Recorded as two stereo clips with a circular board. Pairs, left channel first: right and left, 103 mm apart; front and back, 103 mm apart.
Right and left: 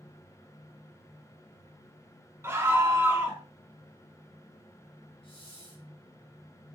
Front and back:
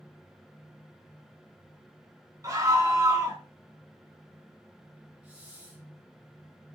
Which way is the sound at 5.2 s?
105° right.